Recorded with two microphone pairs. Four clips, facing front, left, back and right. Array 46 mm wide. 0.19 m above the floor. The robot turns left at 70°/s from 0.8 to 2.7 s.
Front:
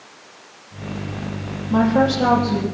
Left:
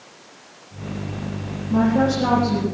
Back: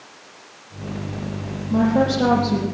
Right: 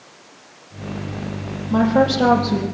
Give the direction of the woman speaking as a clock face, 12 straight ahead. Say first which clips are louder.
Right 2 dB, front 2 dB; 1 o'clock.